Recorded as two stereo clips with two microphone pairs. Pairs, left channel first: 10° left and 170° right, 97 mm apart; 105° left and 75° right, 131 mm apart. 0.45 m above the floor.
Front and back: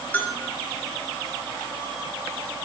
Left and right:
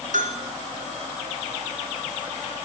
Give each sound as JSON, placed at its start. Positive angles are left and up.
{"t": 0.1, "sound": "a bell", "azimuth_deg": -60, "distance_m": 2.5}